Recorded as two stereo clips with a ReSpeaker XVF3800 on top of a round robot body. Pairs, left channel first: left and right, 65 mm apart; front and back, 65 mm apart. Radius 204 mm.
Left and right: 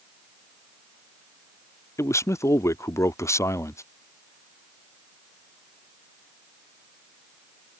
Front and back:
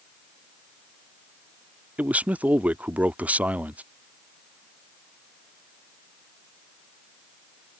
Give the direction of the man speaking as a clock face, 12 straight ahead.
8 o'clock.